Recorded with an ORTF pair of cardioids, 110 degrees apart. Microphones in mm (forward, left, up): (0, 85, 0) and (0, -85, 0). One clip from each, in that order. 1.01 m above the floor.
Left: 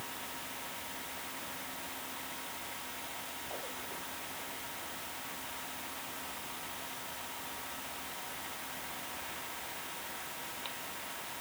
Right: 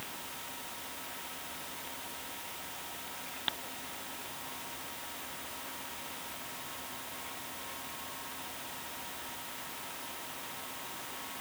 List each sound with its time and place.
Only background noise.